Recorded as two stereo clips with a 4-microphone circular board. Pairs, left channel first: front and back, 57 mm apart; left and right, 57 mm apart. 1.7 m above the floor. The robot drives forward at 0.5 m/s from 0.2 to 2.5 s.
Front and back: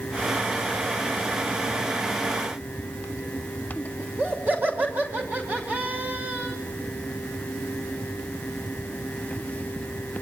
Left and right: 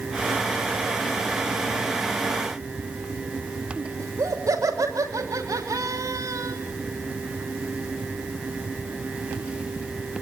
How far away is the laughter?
About 6 m.